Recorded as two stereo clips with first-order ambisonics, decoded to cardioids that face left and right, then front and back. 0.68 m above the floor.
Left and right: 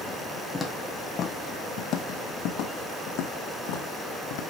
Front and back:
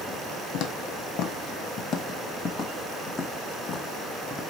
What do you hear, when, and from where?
0.5 s footsteps: 5° left, 1.2 m; by 4.4 s 85° left, 2.5 m